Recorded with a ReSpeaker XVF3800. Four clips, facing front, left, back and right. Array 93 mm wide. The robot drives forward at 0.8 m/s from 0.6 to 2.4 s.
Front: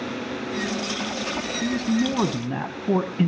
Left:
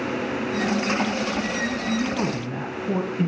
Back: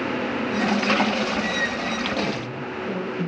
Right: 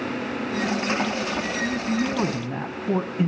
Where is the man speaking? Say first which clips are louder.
Even, front 2 dB; 10° right, 2.5 m; by 3.3 s 15° right, 1.8 m.